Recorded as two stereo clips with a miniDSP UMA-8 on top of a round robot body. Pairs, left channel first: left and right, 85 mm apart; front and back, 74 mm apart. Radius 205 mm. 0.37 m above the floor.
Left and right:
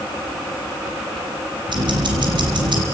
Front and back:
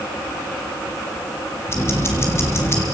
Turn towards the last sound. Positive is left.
turn(degrees=-55)